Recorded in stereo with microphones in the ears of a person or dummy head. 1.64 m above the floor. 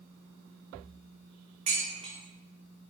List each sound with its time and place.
1.7 s dishes clattering: 30° right (ahead or behind), 1.3 m